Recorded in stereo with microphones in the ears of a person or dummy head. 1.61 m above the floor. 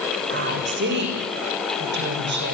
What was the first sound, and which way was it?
A woman speaking, 55° right (ahead or behind).